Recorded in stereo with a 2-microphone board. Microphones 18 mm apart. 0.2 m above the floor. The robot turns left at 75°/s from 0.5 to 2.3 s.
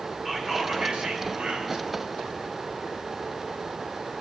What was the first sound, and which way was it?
Whispering, 45° right.